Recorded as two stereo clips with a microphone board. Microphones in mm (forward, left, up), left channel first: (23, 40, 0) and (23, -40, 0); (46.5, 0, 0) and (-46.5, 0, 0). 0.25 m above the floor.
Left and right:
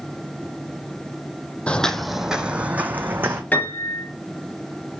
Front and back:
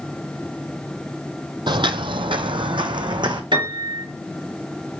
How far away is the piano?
About 2.5 m.